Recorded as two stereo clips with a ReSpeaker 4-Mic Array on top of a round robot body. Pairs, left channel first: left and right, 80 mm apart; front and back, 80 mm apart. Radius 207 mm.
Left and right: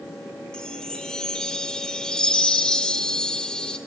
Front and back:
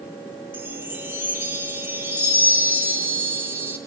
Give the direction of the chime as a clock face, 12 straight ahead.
7 o'clock.